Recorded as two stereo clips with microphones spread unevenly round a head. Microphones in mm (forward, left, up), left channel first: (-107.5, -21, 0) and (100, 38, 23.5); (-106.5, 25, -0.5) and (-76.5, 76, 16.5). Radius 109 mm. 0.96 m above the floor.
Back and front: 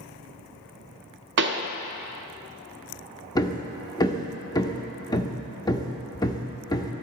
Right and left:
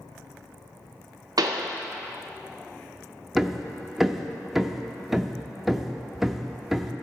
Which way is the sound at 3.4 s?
125° left.